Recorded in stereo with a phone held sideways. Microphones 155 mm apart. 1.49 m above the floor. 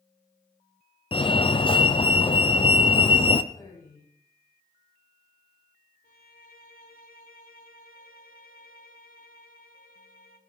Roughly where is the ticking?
I don't hear ticking.